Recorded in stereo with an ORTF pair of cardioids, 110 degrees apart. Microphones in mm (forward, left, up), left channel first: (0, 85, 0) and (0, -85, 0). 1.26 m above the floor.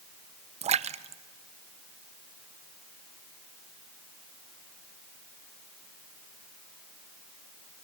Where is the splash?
40° right, 0.8 m.